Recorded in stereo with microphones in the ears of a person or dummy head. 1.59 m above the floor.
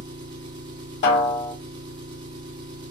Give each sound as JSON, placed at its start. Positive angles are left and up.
{"t": 0.0, "sound": "an engine running", "side_deg": -25, "distance_m": 0.8}
{"t": 1.0, "sound": "a snare drum", "side_deg": 55, "distance_m": 2.0}